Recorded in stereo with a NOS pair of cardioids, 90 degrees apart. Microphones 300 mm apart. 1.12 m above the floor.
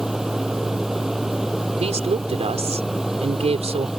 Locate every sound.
0.0 s a machine running: straight ahead
1.8 s a woman speaking: 20° right